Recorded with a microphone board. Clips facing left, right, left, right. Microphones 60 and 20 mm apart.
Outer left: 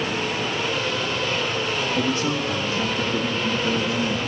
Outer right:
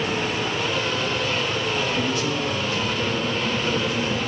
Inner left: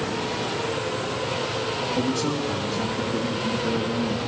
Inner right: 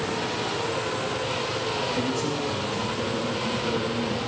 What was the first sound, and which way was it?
A man speaking, 30° left (ahead or behind).